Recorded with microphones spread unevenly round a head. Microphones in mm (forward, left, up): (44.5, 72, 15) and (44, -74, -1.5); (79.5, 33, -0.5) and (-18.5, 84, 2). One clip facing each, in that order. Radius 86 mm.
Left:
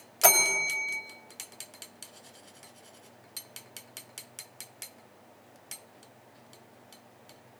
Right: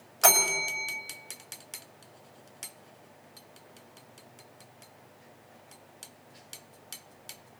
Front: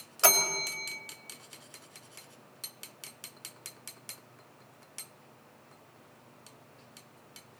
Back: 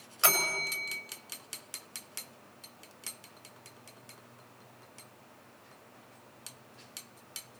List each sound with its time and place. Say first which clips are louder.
0.2 s a bell: even, front 3 dB; 20° left, 3 m